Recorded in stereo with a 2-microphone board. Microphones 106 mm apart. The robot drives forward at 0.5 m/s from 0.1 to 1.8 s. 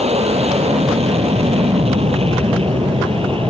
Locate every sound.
0.0 s an aircraft: 70° right (ahead or behind); by 3.5 s 55° right (ahead or behind)